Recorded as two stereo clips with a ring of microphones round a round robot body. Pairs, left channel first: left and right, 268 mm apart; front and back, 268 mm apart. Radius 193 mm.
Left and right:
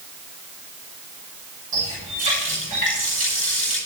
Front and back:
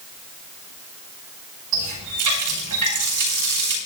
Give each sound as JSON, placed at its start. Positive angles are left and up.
{"t": 1.7, "sound": "a running tap", "azimuth_deg": -160, "distance_m": 5.0}